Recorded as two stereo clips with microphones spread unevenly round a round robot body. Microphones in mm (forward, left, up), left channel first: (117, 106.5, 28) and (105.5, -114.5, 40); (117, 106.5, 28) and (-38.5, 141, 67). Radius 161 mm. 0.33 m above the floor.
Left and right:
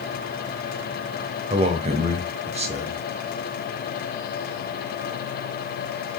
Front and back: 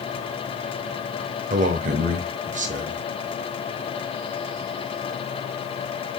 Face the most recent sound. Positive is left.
turn(degrees=-150)